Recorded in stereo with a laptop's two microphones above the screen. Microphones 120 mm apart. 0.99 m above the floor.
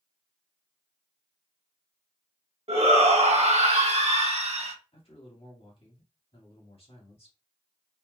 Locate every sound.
2.7 s a shout: 60° right (ahead or behind), 1.4 m
4.9 s a man speaking: 55° left (ahead or behind), 1.8 m